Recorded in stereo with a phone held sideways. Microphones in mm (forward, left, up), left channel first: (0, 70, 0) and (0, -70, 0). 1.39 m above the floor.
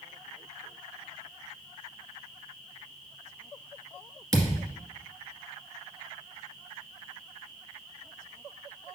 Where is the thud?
25° right (ahead or behind), 1.8 m.